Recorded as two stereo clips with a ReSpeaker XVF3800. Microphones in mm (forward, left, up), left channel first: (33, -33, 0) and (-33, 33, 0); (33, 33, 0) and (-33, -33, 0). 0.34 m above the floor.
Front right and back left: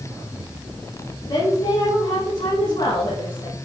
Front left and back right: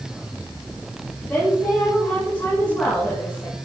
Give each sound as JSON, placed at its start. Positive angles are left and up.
{"t": 1.3, "sound": "a woman speaking", "azimuth_deg": -25, "distance_m": 4.5}